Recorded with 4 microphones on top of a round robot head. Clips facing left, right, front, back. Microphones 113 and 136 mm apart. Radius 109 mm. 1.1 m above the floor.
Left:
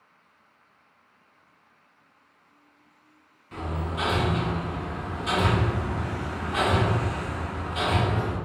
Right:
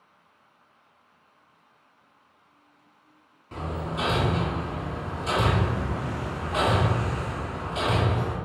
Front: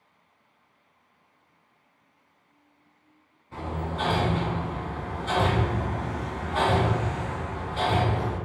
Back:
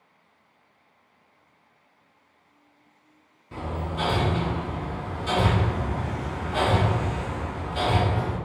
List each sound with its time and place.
3.5 s hammering: 145° right, 1.3 m